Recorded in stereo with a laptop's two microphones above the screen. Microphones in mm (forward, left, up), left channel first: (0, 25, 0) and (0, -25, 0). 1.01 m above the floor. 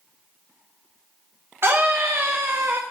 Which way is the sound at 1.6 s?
55° right (ahead or behind).